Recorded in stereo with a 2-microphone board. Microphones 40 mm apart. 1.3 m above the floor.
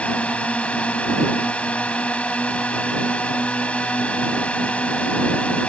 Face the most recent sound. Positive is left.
turn(degrees=30)  # may be behind; listen again after turning